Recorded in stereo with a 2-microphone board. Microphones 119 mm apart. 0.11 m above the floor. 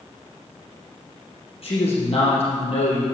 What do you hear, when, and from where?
1.6 s a man speaking: 55° left (ahead or behind), 4 m